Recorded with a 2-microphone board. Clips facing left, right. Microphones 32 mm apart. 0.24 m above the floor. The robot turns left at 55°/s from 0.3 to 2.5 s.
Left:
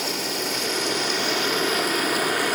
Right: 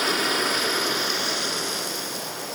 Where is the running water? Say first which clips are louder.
Right 4 dB; 130° right, 1.9 m; by 2.6 s 110° left, 1.9 m.